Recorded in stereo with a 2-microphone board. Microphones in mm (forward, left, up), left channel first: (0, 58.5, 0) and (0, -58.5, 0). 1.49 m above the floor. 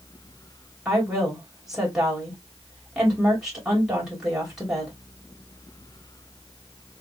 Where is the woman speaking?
5° right (ahead or behind), 2.5 m.